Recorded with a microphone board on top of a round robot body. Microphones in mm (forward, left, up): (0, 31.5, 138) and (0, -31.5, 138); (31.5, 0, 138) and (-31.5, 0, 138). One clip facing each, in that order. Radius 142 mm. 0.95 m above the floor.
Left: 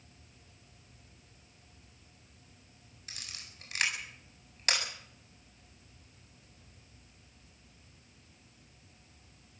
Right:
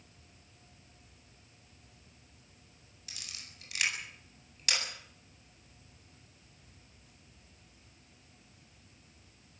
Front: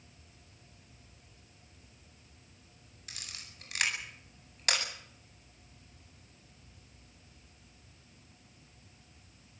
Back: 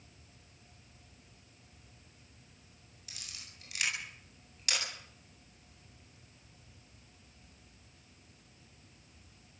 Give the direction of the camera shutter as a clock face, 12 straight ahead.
11 o'clock.